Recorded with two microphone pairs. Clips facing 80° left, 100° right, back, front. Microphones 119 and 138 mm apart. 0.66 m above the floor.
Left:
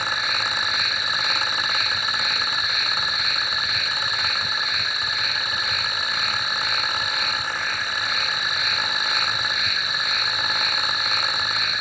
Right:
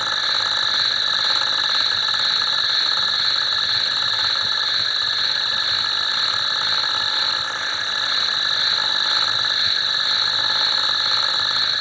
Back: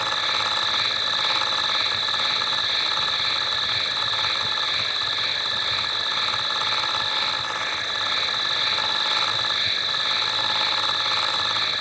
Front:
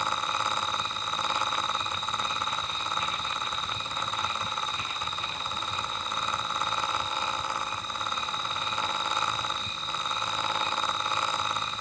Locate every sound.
0.0 s an insect: straight behind